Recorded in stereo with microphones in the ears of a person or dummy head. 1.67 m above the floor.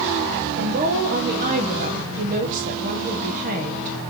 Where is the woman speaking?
45° right (ahead or behind), 1.2 m.